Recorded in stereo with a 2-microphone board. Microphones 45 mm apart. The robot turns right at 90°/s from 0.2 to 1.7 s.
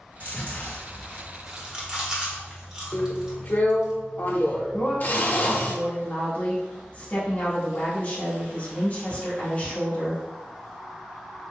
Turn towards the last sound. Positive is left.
turn(degrees=35)  # may be behind; listen again after turning